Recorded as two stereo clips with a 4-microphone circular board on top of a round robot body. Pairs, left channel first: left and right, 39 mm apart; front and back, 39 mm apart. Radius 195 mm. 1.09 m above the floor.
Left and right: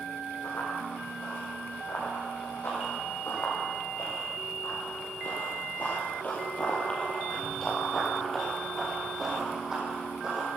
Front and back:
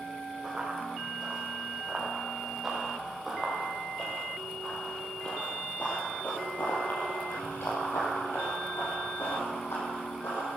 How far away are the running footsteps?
About 5 m.